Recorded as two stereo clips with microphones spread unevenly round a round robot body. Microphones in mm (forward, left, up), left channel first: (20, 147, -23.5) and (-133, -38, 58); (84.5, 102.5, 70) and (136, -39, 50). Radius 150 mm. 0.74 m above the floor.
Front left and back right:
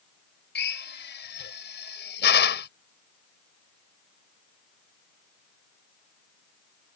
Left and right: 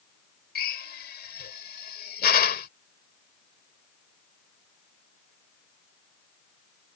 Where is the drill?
100° left.